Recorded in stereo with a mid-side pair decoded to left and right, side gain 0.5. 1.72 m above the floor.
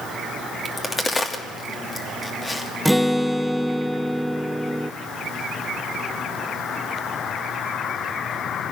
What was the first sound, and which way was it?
A crack, 25° left.